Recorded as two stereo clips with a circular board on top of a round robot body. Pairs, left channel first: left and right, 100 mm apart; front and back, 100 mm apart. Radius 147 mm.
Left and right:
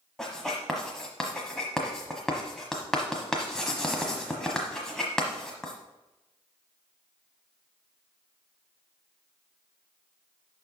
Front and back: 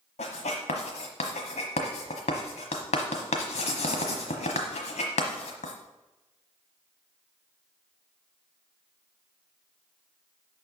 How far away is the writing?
About 1.1 m.